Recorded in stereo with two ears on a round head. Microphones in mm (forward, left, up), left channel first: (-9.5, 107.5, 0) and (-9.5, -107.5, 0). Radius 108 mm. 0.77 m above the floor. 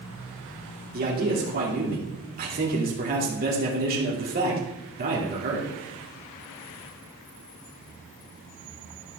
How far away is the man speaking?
About 2.5 m.